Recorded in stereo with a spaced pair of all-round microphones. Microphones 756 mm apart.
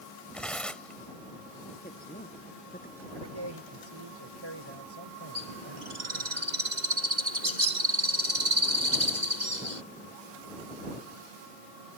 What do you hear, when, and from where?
0.3 s tearing paper: centre (ahead or behind)
1.8 s a woman speaking: 10° left (ahead or behind)
3.1 s a man speaking: 40° right (ahead or behind)
5.3 s a bird: 75° right (ahead or behind)